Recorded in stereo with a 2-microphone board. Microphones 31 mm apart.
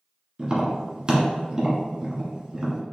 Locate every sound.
0.4 s tapping: 25° right (ahead or behind), 1.4 m